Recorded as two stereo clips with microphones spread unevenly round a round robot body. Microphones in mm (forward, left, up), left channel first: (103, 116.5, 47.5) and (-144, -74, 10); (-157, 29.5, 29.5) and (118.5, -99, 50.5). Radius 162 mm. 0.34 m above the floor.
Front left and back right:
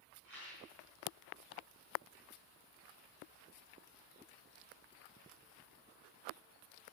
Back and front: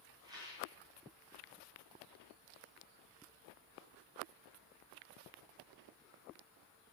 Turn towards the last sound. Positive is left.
turn(degrees=-100)